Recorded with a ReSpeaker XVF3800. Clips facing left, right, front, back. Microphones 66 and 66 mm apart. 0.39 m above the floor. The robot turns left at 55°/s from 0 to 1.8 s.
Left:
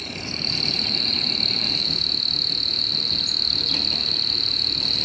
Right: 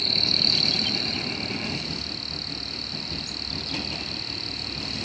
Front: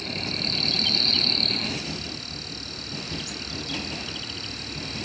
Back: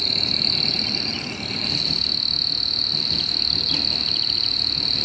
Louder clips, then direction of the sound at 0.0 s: Right 2 dB, back 2 dB; 175° left.